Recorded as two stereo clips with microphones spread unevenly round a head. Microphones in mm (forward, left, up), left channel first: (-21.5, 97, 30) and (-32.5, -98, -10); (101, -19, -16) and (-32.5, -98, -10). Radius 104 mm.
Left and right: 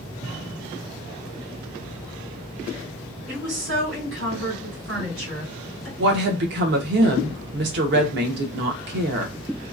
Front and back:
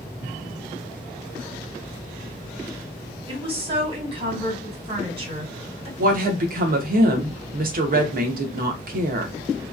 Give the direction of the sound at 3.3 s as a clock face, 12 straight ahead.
3 o'clock.